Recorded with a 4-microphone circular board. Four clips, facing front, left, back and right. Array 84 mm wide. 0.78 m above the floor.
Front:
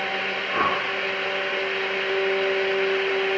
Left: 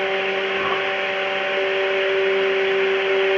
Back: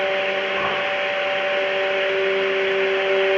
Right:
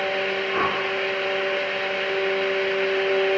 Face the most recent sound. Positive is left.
turn(degrees=-45)